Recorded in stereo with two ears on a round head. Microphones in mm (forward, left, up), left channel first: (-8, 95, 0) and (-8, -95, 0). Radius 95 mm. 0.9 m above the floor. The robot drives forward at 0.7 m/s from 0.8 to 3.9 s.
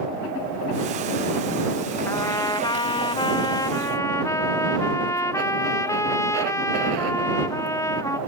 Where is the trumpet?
15° left (ahead or behind), 0.9 m.